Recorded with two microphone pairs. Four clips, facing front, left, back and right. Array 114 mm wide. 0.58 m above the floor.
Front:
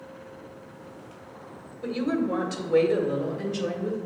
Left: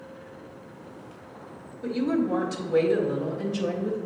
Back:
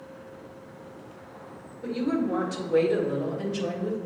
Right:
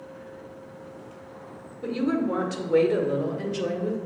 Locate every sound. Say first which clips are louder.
1.8 s a woman speaking: even, even; 50° right, 1.7 m; by 4.0 s 75° right, 2.5 m